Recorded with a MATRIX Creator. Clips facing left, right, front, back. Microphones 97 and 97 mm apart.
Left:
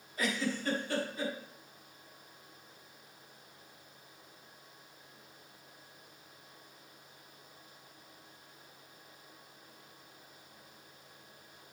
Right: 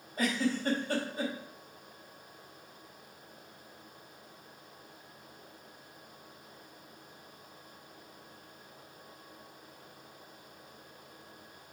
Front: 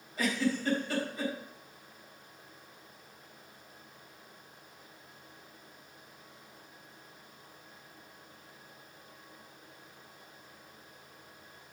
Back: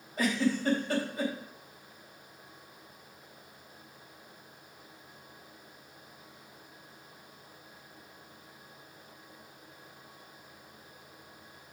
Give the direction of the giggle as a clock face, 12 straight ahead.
4 o'clock.